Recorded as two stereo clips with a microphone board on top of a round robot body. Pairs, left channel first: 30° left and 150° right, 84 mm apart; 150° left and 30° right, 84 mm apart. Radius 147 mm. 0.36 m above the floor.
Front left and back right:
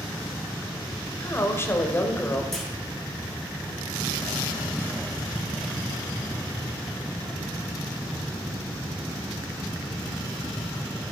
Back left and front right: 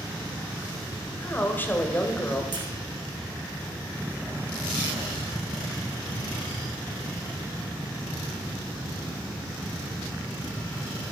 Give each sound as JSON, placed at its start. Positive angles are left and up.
{"t": 1.2, "sound": "a woman speaking", "azimuth_deg": 85, "distance_m": 2.5}
{"t": 2.5, "sound": "a clunk", "azimuth_deg": -55, "distance_m": 3.0}